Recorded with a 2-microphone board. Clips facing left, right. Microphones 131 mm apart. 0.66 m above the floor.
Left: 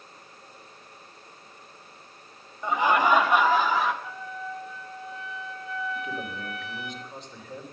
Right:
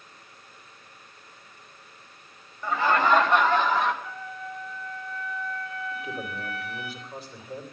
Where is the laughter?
20° left (ahead or behind), 1.1 m; by 3.9 s 5° left (ahead or behind), 2.5 m.